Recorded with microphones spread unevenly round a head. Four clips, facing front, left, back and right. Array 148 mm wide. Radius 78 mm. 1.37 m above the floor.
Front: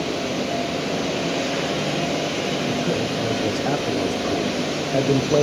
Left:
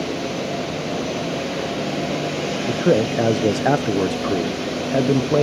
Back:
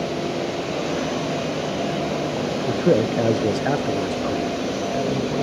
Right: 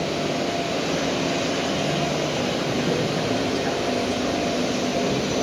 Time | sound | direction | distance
2.7 | a man speaking | 140° left | 1.0 m